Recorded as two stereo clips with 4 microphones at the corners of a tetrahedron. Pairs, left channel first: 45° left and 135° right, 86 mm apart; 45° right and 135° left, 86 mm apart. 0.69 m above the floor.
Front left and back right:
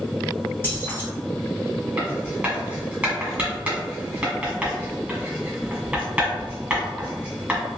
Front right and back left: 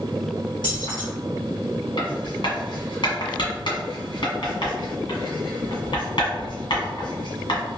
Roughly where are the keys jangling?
Ahead.